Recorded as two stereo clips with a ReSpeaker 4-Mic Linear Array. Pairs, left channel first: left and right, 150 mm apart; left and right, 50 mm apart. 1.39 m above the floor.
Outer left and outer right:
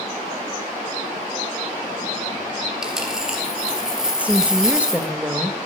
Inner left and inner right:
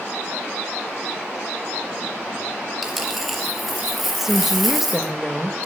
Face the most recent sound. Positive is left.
turn(degrees=-10)  # may be behind; listen again after turning